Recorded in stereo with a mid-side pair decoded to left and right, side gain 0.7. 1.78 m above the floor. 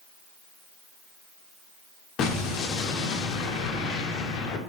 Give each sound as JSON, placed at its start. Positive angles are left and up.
{"t": 2.2, "sound": "an explosion", "azimuth_deg": 50, "distance_m": 0.6}